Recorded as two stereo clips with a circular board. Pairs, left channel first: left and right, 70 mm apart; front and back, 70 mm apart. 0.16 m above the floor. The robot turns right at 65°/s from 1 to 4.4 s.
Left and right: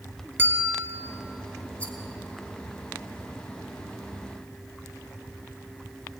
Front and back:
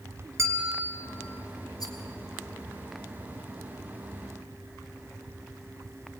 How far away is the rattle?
About 2.5 m.